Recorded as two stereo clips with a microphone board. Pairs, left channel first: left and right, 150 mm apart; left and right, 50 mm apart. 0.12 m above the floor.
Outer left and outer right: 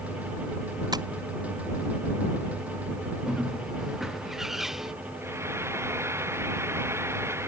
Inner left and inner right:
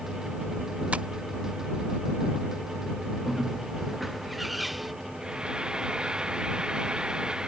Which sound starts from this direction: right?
Tapping, at 0.9 s.